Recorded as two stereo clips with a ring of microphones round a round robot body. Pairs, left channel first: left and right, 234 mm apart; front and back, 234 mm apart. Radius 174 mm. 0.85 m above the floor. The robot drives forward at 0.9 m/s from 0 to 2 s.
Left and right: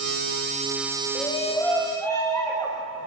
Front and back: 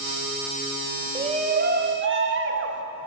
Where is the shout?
135° left, 0.9 m; by 2.8 s 165° left, 1.4 m.